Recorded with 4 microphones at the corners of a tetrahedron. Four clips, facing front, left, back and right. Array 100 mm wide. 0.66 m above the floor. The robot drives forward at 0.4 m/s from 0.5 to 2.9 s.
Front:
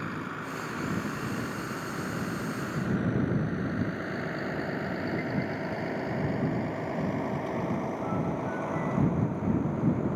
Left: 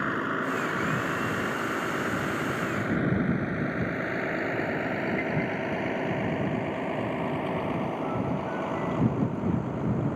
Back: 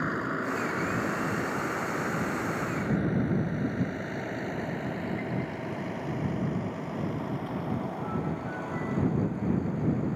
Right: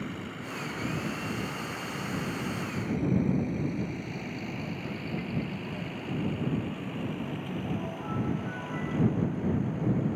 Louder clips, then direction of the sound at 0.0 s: Left 10 dB, back 5 dB; 120° left.